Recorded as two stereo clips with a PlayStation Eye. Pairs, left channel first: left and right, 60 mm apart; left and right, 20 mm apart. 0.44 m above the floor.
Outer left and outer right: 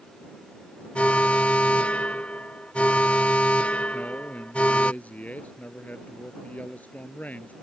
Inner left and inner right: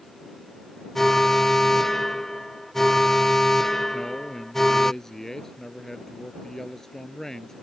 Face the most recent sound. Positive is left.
turn(degrees=30)  # may be behind; listen again after turning